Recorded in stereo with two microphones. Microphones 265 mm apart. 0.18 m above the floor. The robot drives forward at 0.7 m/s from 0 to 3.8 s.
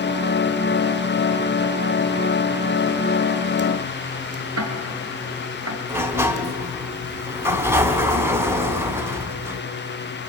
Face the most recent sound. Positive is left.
turn(degrees=-10)  # may be behind; listen again after turning